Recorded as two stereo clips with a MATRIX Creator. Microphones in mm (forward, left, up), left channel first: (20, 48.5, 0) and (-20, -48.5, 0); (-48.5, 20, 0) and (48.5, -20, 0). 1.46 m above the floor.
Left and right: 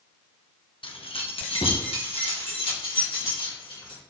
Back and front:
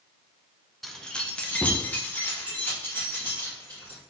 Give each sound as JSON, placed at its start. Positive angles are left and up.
{"t": 0.8, "sound": "keys jangling", "azimuth_deg": 70, "distance_m": 0.6}